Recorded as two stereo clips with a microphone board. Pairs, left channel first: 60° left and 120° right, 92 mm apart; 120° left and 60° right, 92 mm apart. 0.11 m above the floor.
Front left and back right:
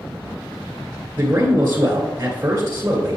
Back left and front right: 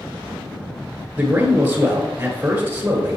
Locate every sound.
1.2 s a man speaking: 105° right, 1.8 m